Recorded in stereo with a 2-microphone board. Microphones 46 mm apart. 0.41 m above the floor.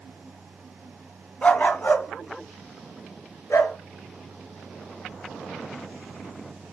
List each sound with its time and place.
1.4 s a dog barking: 30° left (ahead or behind), 1.2 m; by 3.8 s 85° left, 2.5 m